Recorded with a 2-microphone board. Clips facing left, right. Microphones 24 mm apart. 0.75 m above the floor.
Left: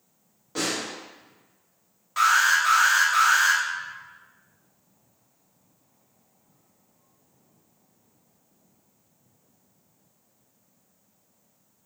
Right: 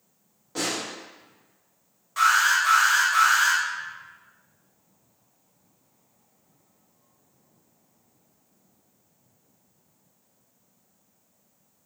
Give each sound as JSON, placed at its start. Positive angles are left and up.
{"t": 0.6, "sound": "a snare drum", "side_deg": 10, "distance_m": 0.9}
{"t": 2.2, "sound": "an alarm", "side_deg": 15, "distance_m": 1.2}